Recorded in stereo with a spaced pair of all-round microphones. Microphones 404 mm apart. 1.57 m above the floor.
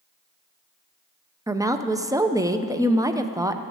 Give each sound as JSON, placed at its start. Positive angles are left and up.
{"t": 1.5, "sound": "a woman speaking", "side_deg": -10, "distance_m": 0.6}